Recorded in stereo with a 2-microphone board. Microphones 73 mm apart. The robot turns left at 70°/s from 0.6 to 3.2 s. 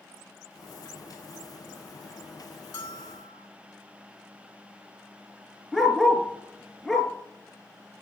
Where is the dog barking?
Centre (ahead or behind), 3 m.